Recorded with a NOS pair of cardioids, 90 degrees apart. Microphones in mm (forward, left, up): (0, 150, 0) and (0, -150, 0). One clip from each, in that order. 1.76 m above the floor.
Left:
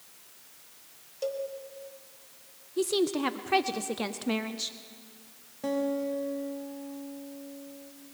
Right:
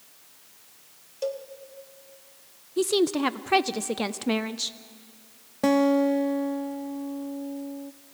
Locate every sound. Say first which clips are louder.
1.2 s a cowbell: right 1 dB; 15° right, 1.6 m
2.8 s a woman speaking: right 4 dB; 20° right, 0.6 m
5.6 s a guitar: right 9 dB; 70° right, 0.8 m